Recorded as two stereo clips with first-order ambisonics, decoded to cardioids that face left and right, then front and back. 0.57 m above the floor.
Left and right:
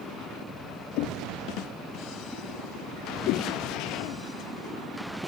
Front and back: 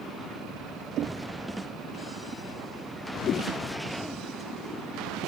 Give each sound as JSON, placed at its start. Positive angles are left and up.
{"t": 1.0, "sound": "knocking", "azimuth_deg": 125}
{"t": 3.3, "sound": "a whoosh", "azimuth_deg": 60}